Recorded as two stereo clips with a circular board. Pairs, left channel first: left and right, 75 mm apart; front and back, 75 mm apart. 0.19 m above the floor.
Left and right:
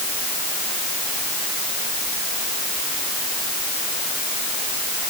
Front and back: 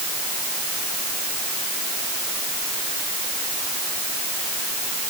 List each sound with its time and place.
Only background noise.